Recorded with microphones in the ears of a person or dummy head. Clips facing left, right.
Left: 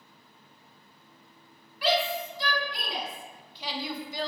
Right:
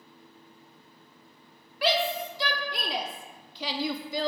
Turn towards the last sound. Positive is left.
turn(degrees=-65)  # may be behind; listen again after turning